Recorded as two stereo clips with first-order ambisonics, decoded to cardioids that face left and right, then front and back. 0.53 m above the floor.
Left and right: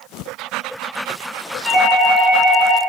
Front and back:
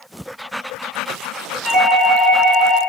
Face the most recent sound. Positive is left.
turn(degrees=-30)